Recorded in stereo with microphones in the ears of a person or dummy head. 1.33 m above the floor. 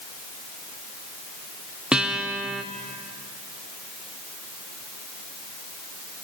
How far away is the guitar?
About 0.9 m.